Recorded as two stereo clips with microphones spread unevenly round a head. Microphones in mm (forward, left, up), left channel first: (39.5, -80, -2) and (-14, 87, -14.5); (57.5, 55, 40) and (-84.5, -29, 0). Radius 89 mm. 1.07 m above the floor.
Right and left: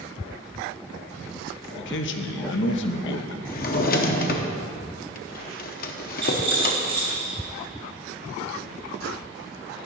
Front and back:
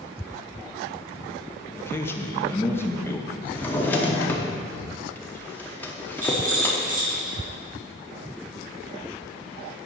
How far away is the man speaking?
About 0.8 m.